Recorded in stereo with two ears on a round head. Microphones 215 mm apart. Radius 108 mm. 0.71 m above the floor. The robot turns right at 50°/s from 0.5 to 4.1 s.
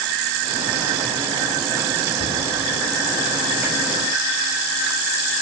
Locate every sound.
2.2 s a cupboard door: 65° left (ahead or behind), 2.5 m; by 2.4 s 60° left (ahead or behind), 2.5 m